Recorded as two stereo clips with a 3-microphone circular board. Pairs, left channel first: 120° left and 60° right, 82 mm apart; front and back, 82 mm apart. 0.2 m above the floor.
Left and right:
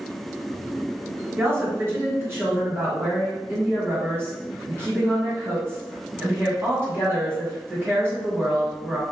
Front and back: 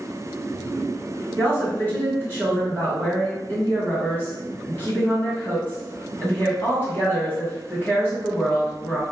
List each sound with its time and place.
1.4 s a woman speaking: 35° right, 1.6 m